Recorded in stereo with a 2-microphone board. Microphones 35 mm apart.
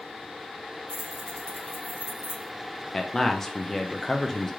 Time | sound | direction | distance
0.9 | keys jangling | 30° right (ahead or behind) | 1.5 m
2.9 | a man speaking | 5° left (ahead or behind) | 0.5 m